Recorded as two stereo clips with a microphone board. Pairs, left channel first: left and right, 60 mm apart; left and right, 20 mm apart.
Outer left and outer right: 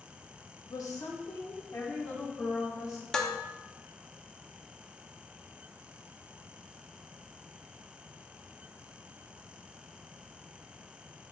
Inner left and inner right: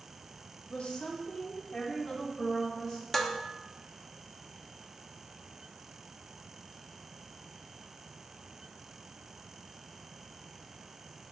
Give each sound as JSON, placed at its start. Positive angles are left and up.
{"t": 0.7, "sound": "a woman speaking", "side_deg": 60, "distance_m": 0.9}
{"t": 3.1, "sound": "dishes clattering", "side_deg": 10, "distance_m": 0.7}